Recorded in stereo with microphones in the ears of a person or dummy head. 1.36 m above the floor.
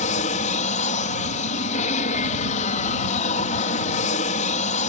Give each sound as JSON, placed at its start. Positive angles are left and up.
{"t": 0.0, "sound": "an aircraft", "side_deg": 40}